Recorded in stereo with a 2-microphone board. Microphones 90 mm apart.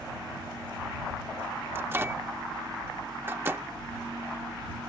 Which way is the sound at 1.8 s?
25° right (ahead or behind).